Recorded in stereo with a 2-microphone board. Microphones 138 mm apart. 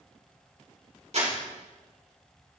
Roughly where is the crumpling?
Right.